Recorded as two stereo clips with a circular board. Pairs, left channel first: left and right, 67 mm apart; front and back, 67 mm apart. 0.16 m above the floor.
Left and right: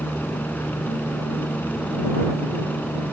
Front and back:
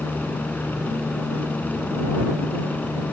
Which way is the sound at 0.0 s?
45° left.